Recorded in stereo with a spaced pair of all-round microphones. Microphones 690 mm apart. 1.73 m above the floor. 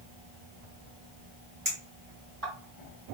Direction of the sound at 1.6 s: 25° right (ahead or behind).